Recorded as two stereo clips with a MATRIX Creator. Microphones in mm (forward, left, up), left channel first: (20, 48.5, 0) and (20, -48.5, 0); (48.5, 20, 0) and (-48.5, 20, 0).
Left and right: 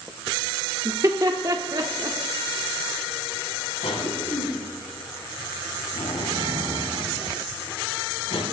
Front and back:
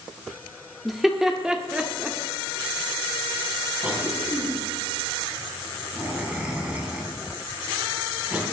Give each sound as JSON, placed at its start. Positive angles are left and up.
{"t": 0.8, "sound": "laughter", "azimuth_deg": -90, "distance_m": 1.0}
{"t": 3.8, "sound": "a cough", "azimuth_deg": 105, "distance_m": 4.0}